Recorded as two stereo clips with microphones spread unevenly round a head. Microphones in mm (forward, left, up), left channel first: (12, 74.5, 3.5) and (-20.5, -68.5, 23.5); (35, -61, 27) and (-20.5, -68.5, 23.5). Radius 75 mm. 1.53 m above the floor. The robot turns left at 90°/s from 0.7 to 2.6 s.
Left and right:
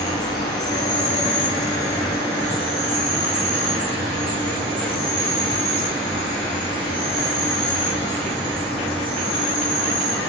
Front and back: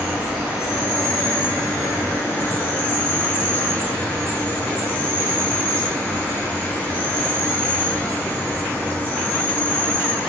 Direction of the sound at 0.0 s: 120° left.